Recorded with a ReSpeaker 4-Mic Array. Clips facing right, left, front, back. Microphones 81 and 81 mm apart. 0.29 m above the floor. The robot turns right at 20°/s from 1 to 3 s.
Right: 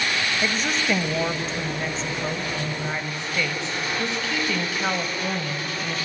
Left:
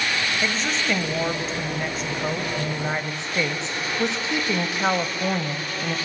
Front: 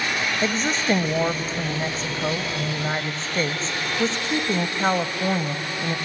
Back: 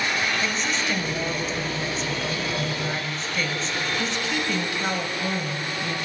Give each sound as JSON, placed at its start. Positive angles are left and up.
{"t": 0.4, "sound": "a woman speaking", "azimuth_deg": -5, "distance_m": 1.3}